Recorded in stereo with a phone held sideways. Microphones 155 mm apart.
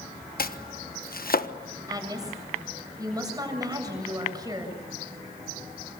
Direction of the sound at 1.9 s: 25° right (ahead or behind).